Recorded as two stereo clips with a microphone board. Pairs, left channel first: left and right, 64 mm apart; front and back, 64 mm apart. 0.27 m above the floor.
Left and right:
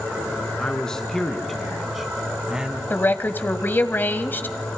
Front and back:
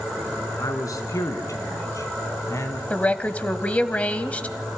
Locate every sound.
0.6 s a man speaking: 15° left, 3.5 m; by 2.8 s 20° right, 2.5 m
2.9 s a woman speaking: 55° left, 1.4 m